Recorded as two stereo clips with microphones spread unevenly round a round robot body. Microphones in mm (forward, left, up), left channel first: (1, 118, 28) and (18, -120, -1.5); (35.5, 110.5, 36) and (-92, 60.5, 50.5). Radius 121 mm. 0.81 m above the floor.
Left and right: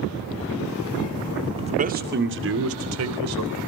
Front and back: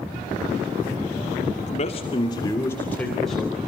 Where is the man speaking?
20° right, 1.8 m; by 3.7 s 70° right, 3.5 m.